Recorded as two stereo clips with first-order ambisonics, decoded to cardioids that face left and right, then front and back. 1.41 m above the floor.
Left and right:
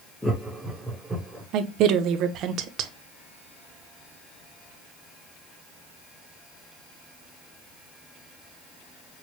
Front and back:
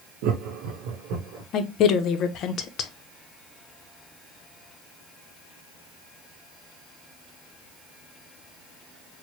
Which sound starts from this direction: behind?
Laughter, at 0.2 s.